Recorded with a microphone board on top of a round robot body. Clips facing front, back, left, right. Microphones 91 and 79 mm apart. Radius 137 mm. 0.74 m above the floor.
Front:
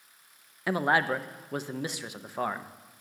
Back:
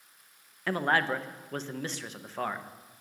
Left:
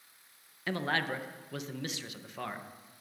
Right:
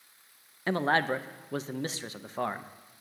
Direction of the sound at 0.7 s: 75° right.